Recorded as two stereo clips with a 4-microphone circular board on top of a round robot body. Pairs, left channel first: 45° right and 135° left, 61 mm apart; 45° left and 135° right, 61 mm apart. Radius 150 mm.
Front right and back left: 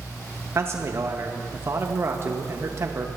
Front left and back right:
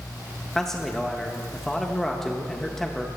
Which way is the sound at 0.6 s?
125° left.